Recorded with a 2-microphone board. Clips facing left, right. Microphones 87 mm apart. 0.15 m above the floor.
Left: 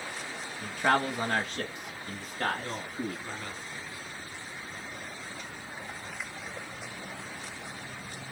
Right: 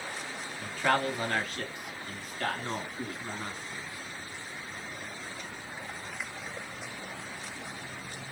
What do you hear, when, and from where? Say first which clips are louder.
0.6 s a man speaking: left 1 dB; 15° left (ahead or behind), 1.1 m; by 3.5 s 35° left (ahead or behind), 1.7 m
2.5 s a man speaking: even; 20° right (ahead or behind), 1.5 m